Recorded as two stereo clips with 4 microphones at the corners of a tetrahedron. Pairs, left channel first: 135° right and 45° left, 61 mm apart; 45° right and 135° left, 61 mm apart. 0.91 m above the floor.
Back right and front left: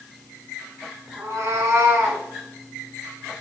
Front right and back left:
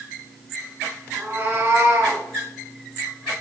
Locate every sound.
1.2 s a cat meowing: 85° left, 3.5 m; by 2.2 s 95° left, 3.5 m